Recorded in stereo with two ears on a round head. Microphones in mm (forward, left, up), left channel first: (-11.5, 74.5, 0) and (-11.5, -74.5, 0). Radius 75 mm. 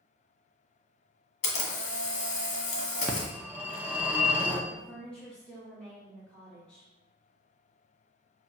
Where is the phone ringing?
10° right (ahead or behind), 0.8 m.